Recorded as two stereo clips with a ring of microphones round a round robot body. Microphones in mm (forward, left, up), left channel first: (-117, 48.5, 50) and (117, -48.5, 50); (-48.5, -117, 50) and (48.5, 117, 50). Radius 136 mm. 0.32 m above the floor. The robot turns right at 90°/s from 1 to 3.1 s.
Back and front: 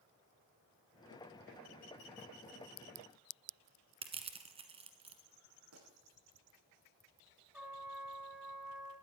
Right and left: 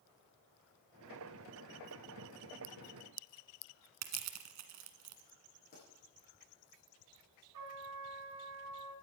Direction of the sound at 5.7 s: 55° right.